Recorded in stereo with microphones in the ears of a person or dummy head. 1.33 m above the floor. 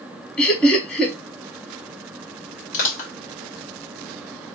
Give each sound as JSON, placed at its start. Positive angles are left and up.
{"t": 0.4, "sound": "laughter", "side_deg": 10, "distance_m": 1.2}
{"t": 2.7, "sound": "crushing", "side_deg": 50, "distance_m": 1.2}